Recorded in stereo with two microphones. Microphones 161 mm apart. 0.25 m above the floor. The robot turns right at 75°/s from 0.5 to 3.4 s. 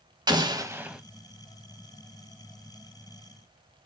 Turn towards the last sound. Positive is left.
turn(degrees=175)